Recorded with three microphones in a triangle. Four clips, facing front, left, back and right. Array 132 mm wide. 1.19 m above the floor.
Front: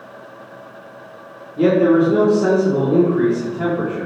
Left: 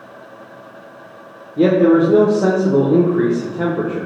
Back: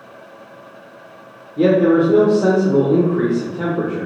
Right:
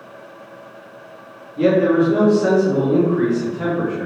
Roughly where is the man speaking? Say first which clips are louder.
Left 3 dB, even; behind left.